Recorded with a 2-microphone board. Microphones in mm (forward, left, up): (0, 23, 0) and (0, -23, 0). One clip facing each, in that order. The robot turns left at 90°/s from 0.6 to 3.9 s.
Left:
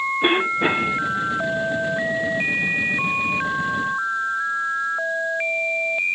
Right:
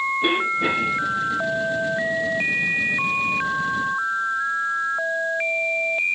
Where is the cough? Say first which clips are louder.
Left 4 dB; 55° left, 1.6 m; by 1.0 s 20° left, 1.6 m.